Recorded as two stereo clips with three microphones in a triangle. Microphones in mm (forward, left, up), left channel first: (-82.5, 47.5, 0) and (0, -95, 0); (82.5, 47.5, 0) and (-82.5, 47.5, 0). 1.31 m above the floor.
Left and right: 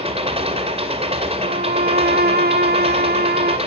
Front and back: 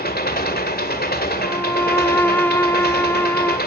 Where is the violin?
80° right, 1.1 m.